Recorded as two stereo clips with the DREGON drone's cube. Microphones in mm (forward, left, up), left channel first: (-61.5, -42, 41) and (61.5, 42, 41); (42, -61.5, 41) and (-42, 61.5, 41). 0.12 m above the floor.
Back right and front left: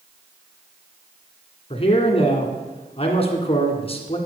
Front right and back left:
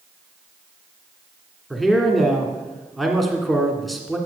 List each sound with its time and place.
1.7 s a man speaking: 145° right, 1.8 m